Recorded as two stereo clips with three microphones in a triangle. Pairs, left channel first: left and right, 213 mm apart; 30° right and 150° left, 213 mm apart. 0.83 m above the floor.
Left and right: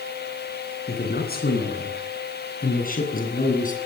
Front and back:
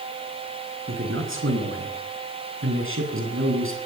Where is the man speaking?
130° left, 10 m; by 3.8 s 140° left, 8 m.